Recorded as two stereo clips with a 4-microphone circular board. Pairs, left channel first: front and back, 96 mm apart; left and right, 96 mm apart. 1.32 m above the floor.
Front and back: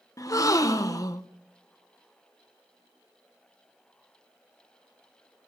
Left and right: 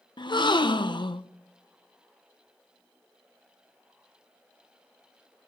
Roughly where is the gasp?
Ahead left.